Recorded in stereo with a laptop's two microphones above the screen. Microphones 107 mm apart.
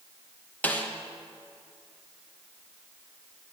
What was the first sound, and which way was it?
A snare drum, 15° left (ahead or behind).